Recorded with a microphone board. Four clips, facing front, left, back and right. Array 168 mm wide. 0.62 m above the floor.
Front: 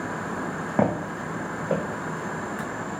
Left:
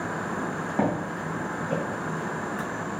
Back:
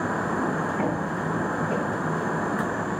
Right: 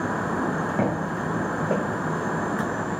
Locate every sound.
0.8 s footsteps: straight ahead, 1.0 m; by 1.8 s 65° right, 1.5 m